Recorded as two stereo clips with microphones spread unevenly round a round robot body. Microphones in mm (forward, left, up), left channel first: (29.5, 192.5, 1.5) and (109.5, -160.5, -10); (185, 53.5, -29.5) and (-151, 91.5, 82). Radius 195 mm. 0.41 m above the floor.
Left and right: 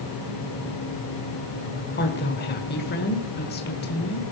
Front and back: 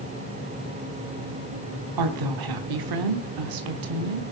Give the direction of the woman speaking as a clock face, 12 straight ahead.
7 o'clock.